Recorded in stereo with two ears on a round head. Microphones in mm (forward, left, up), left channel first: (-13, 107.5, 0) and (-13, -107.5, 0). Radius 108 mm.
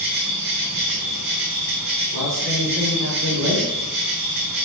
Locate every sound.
0.0 s an insect: 50° right (ahead or behind), 4 m
2.1 s a man speaking: 60° right (ahead or behind), 4.5 m